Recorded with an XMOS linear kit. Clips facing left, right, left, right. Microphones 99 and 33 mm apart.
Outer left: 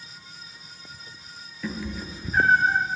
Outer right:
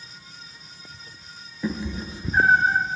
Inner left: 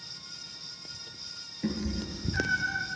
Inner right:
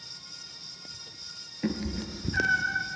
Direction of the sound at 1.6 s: 25° right (ahead or behind).